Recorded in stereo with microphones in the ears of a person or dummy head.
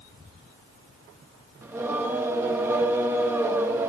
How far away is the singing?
About 0.8 m.